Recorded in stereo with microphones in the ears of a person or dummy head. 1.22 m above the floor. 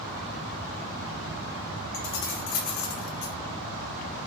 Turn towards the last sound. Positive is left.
turn(degrees=75)  # may be behind; listen again after turning